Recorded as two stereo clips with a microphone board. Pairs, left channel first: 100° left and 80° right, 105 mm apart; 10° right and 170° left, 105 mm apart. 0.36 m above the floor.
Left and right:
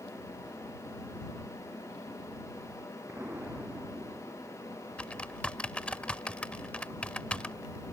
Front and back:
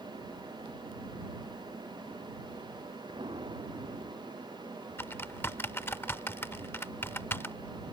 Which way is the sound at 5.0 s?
35° left.